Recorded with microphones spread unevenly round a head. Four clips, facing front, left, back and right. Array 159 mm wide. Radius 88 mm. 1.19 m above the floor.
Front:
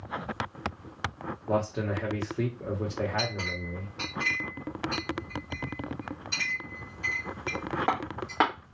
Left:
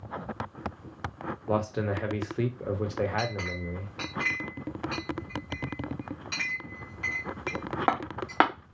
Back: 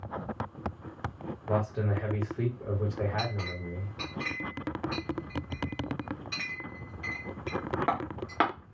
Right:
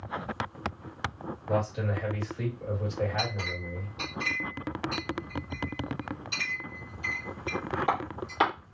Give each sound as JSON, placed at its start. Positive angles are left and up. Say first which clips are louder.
{"t": 1.5, "sound": "a man speaking", "louder": "left 1 dB, front 2 dB", "azimuth_deg": 65, "distance_m": 1.0}
{"t": 3.2, "sound": "a clink", "louder": "left 1 dB, front 2 dB", "azimuth_deg": 95, "distance_m": 0.9}